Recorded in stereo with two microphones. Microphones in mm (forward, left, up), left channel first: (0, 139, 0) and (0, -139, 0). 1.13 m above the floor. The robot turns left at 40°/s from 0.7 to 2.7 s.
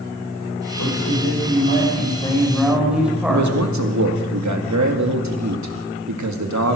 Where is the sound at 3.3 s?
80° right, 1.9 m.